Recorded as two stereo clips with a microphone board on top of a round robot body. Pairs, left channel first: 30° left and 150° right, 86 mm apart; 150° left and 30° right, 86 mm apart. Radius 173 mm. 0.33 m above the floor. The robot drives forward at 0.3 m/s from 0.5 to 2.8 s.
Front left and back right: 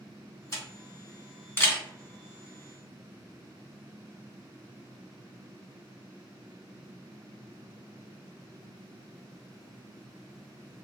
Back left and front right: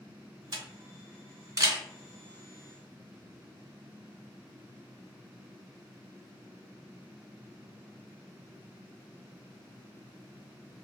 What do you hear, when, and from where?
0.5 s a camera shutter: 15° right, 1.5 m; by 1.8 s 20° right, 1.2 m